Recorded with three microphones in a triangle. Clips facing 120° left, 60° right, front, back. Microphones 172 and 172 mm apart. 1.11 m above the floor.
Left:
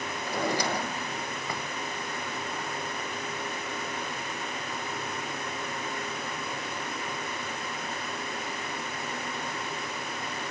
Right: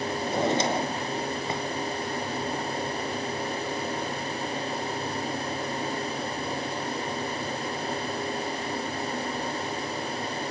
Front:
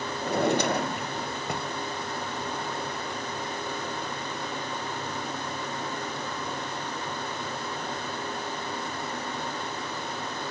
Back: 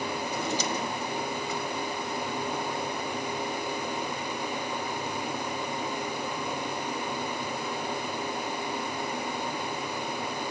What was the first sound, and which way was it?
A drawer, 5° left.